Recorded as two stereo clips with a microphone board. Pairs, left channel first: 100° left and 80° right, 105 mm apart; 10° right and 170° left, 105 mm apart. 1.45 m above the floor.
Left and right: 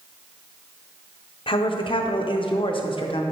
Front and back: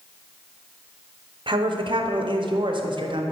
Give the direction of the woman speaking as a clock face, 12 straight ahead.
8 o'clock.